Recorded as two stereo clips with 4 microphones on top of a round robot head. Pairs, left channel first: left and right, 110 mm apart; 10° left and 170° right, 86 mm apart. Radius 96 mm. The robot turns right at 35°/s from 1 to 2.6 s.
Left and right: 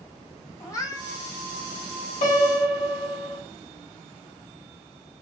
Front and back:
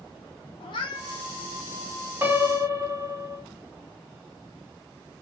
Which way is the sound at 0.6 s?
35° left.